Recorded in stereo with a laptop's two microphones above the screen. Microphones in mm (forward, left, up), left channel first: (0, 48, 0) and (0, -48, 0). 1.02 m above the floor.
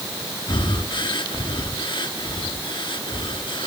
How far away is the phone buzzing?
I don't hear a phone buzzing.